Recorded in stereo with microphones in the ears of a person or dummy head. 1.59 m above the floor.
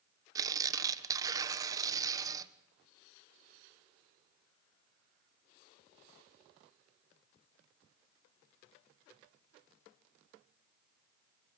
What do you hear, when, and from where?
0.3 s tearing paper: 25° right (ahead or behind), 1.4 m